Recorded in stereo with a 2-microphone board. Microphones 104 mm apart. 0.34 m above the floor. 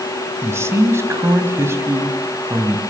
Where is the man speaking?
25° right (ahead or behind), 2.5 m.